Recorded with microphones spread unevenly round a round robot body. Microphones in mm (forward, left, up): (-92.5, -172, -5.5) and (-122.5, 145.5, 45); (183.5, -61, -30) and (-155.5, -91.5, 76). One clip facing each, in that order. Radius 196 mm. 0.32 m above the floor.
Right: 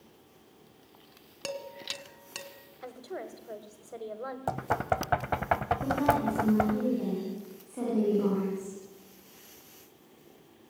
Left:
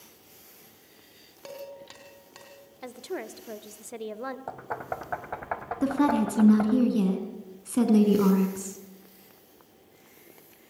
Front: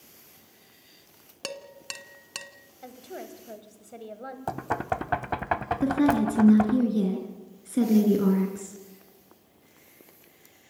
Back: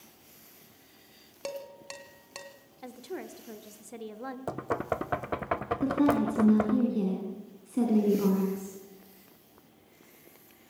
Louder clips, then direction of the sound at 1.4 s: Right 2 dB, back 1 dB; 40° right.